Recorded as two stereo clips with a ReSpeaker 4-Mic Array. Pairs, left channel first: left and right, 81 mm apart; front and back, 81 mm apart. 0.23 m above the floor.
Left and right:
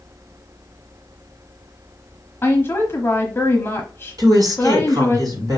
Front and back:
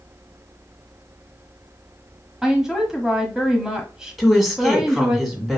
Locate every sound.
2.4 s a woman speaking: 105° left, 1.1 m
4.2 s a woman speaking: 95° right, 1.6 m